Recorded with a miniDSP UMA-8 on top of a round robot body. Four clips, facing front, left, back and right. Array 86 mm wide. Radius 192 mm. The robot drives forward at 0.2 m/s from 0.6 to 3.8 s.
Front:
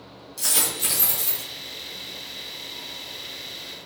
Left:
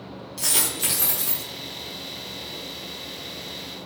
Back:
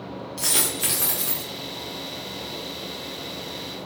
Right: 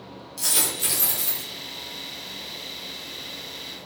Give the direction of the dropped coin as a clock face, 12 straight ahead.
7 o'clock.